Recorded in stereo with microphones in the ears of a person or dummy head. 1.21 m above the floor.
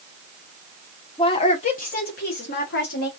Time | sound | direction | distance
1.2 | a woman speaking | 25° left (ahead or behind) | 0.8 m